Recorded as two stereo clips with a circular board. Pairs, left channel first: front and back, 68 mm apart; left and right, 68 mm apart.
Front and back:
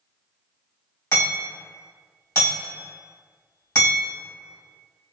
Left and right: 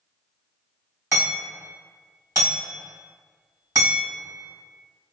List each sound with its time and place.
1.1 s hammering: 45° right, 1.9 m